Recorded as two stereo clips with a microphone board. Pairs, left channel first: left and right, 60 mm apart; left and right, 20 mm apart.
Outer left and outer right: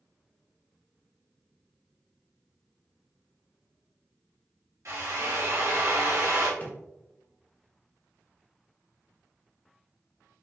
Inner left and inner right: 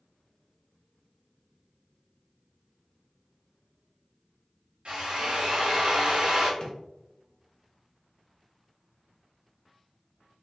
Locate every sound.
4.8 s a drill: 60° right (ahead or behind), 1.5 m
6.6 s a drawer: 30° left (ahead or behind), 0.8 m